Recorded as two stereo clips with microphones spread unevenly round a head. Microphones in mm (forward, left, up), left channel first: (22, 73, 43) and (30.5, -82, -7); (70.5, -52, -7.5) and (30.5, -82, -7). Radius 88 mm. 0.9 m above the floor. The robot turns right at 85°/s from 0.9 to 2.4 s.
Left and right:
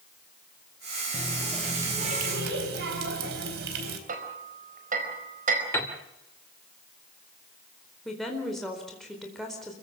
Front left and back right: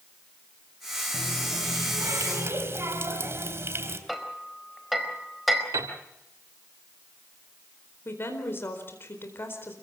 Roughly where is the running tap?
Behind left.